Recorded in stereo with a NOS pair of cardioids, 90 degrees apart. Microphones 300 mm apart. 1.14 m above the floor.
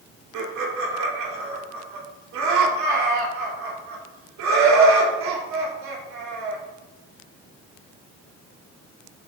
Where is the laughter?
70° right, 3.5 m.